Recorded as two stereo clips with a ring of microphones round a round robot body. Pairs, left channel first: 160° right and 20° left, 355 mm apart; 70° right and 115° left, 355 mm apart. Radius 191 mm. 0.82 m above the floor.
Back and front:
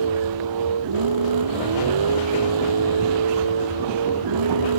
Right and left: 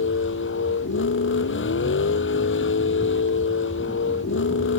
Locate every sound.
0.0 s a vehicle: 10° right